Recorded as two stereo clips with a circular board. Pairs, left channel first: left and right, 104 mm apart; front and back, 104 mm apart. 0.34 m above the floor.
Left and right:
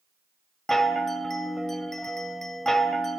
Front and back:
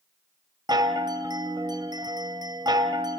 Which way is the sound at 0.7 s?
175° left.